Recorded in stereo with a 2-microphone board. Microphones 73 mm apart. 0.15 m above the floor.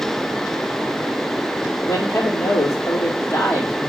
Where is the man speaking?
40° left (ahead or behind), 4 m.